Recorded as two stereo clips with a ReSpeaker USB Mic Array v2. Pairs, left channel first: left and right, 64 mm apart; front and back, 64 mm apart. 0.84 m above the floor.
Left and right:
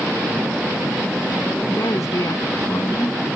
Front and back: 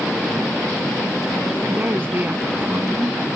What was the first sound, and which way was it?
A woman speaking, 120° left.